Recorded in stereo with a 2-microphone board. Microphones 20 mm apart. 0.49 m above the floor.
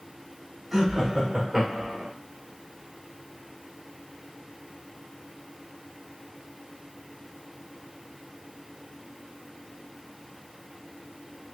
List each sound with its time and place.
0.7 s laughter: 20° right (ahead or behind), 1.2 m; by 2.1 s 35° right (ahead or behind), 0.8 m